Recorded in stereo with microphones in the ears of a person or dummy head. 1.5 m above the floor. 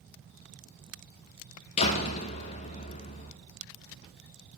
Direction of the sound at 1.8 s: 25° left (ahead or behind).